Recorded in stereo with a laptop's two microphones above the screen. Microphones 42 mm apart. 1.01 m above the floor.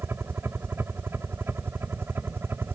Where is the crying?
I don't hear crying.